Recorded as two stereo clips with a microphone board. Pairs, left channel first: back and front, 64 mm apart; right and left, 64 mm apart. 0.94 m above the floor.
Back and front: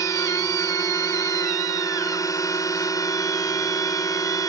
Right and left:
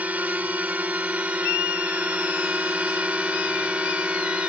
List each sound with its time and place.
0.0 s a drone: 155° left; by 4.5 s 160° left